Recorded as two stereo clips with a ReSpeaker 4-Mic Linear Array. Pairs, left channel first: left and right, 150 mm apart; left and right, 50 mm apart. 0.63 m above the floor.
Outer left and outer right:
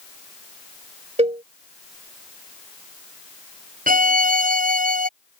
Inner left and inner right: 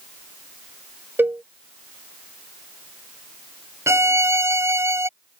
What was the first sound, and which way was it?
A cowbell, 50° right (ahead or behind).